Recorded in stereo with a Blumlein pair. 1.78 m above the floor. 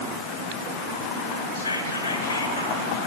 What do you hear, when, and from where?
1.6 s whispering: 70° left, 1.5 m